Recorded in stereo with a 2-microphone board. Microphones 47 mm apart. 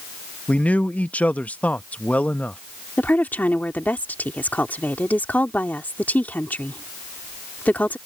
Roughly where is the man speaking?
Left.